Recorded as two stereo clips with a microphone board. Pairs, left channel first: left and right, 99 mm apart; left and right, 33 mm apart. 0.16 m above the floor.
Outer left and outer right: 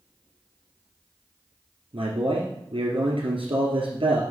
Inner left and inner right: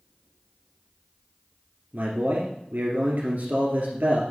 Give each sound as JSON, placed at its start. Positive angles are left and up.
{"t": 1.9, "sound": "a man speaking", "side_deg": -70, "distance_m": 3.0}